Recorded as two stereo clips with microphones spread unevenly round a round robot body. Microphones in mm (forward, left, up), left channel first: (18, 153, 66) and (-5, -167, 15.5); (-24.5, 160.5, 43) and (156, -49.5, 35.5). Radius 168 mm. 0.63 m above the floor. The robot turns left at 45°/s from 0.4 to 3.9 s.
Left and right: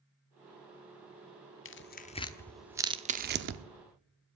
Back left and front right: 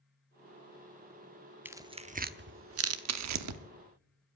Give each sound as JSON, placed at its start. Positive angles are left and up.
{"t": 1.6, "sound": "tearing paper", "azimuth_deg": 35, "distance_m": 0.8}